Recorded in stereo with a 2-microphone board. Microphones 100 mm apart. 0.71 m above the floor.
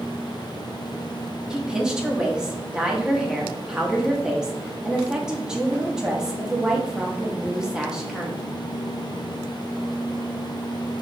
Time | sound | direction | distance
1.5 | a woman speaking | 10° right (ahead or behind) | 0.9 m